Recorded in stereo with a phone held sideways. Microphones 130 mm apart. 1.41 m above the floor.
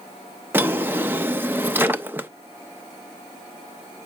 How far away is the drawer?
About 0.7 m.